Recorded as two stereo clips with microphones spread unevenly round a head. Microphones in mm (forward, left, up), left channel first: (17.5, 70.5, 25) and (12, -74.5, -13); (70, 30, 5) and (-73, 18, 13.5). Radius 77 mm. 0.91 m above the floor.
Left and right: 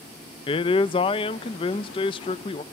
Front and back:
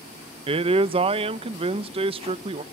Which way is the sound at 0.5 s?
150° left.